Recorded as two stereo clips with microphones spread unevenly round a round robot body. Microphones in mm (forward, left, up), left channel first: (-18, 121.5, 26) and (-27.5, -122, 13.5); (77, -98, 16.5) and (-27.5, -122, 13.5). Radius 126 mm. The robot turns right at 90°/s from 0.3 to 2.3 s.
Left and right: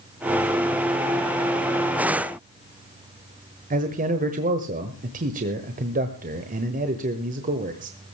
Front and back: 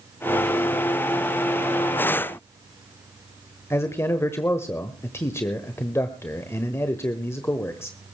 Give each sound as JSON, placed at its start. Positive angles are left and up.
{"t": 3.7, "sound": "a man speaking", "azimuth_deg": -50, "distance_m": 1.2}